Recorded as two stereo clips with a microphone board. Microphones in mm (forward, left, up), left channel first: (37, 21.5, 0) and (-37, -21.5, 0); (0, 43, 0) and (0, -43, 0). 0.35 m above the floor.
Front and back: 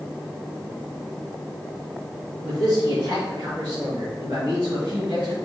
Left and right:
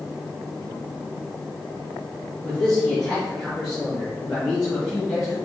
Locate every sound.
2.4 s a man speaking: 175° left, 3 m; by 5.3 s 175° right, 4.5 m